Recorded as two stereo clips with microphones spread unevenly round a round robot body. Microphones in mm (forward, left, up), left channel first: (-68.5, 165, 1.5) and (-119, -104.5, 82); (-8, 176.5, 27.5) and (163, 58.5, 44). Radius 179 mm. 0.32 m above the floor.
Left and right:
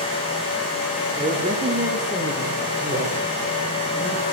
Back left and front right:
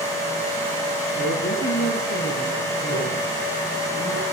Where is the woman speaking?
170° right, 7.5 m; by 4.2 s 165° right, 10 m.